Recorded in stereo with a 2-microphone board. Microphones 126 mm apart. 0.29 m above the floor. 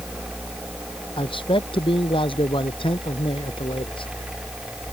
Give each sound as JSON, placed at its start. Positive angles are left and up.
{"t": 1.2, "sound": "a man speaking", "side_deg": 45}